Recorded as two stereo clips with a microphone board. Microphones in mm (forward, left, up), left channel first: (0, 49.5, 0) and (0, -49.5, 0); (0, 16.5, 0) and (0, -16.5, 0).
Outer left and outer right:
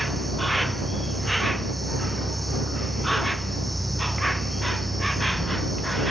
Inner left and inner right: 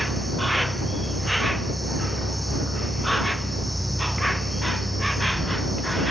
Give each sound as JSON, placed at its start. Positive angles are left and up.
{"t": 0.0, "sound": "an insect", "side_deg": 0}